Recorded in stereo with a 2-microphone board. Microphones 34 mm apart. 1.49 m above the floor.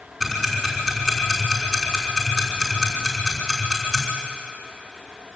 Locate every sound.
0.2 s ticking: 5° left (ahead or behind), 5.5 m